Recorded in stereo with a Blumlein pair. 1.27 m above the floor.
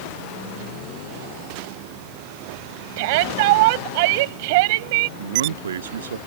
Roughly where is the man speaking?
Ahead right.